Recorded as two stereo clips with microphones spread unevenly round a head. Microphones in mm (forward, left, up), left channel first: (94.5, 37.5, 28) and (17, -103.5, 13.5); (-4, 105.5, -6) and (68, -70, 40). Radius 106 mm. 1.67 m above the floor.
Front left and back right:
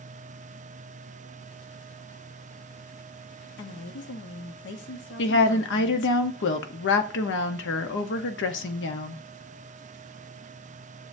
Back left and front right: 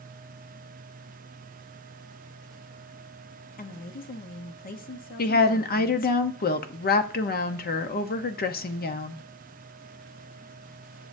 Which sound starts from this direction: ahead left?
A woman speaking, at 3.6 s.